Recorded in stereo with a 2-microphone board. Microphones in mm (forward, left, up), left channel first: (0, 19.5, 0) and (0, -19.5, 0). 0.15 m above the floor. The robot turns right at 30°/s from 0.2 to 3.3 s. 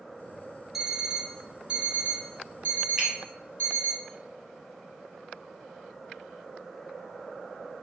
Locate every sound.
0.7 s an alarm clock: 175° right, 0.8 m; by 4.0 s 100° right, 0.8 m
3.0 s a finger snap: 15° right (ahead or behind), 1.4 m